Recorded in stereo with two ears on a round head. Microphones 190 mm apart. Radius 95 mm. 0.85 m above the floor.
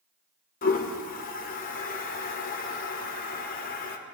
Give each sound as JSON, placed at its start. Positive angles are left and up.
{"t": 0.6, "sound": "a toilet flushing", "side_deg": 40, "distance_m": 0.7}